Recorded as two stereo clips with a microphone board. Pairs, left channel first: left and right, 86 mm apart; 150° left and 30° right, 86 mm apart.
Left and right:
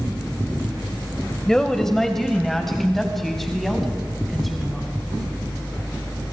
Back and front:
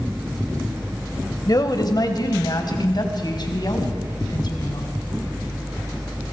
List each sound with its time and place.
1.5 s a woman speaking: 175° left, 2.0 m; by 4.9 s straight behind, 4 m